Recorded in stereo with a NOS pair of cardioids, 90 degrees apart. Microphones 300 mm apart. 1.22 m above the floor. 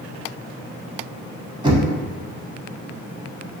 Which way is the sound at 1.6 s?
15° right.